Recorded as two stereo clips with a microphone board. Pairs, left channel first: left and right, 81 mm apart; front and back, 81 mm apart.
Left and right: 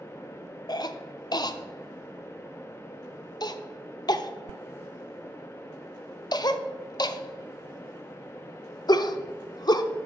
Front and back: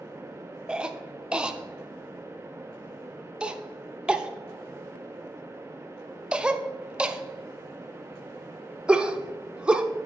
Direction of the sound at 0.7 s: 105° left.